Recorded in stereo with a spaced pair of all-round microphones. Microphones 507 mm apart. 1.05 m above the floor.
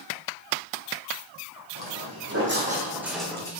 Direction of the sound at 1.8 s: 50° right (ahead or behind).